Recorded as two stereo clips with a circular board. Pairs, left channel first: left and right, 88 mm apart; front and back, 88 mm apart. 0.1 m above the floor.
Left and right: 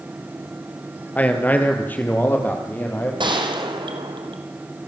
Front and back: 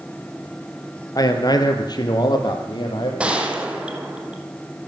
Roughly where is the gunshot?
Right.